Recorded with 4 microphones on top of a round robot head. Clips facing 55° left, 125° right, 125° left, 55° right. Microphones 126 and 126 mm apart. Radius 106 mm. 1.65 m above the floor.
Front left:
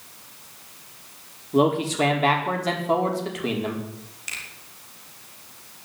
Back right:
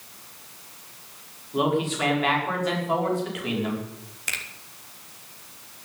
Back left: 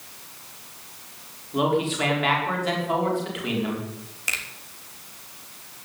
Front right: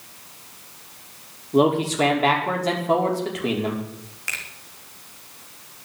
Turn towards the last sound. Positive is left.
turn(degrees=-160)